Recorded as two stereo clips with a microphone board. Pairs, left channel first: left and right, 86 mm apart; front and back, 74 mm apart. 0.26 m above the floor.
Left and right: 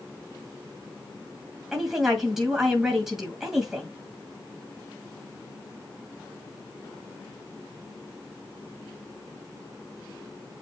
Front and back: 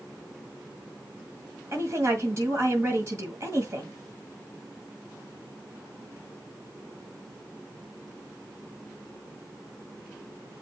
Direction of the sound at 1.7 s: 175° right.